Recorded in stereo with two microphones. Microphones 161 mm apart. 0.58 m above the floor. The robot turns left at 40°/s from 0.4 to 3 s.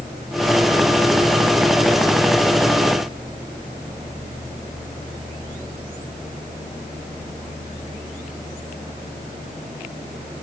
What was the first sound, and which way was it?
Only background noise.